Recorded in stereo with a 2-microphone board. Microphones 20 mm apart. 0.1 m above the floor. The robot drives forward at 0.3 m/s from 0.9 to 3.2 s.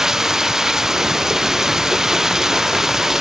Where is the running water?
25° right (ahead or behind).